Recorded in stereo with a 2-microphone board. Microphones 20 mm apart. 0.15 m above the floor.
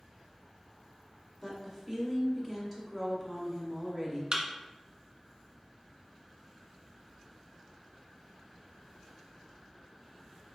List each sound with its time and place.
1.4 s a woman speaking: 10° left (ahead or behind), 1.1 m
4.3 s a thud: 40° right (ahead or behind), 0.7 m